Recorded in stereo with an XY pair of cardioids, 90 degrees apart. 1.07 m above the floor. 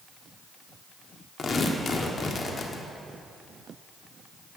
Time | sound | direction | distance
1.4 | tearing paper | 50° left | 1.5 m